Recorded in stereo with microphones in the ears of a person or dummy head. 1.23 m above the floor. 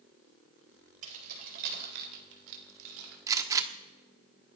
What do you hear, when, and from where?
1.0 s keys jangling: 45° right (ahead or behind), 4.5 m; by 3.2 s 85° right, 3 m
3.3 s a gunshot: 20° right (ahead or behind), 1.1 m